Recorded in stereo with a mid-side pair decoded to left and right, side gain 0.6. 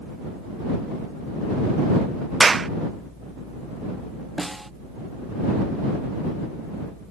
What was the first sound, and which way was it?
A clap, 20° right.